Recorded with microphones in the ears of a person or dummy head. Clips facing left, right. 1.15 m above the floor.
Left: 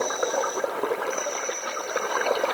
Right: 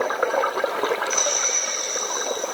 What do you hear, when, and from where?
Only background noise.